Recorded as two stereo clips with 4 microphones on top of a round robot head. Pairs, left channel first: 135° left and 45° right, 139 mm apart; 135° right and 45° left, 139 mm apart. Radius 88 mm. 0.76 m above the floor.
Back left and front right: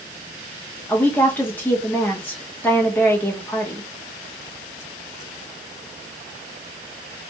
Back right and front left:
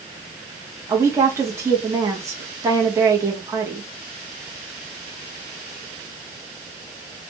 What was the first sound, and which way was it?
A woman speaking, 75° left.